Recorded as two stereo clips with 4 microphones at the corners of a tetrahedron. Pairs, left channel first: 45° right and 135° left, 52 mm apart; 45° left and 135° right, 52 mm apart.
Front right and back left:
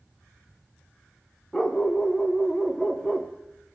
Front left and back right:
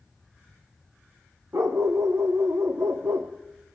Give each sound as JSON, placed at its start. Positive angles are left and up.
{"t": 1.5, "sound": "a dog barking", "azimuth_deg": -125, "distance_m": 3.0}